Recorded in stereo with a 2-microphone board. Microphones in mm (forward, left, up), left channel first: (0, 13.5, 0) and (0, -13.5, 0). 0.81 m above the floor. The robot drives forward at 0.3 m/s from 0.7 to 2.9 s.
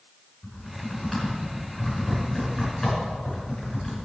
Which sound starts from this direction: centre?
Typing on a keyboard, at 0.4 s.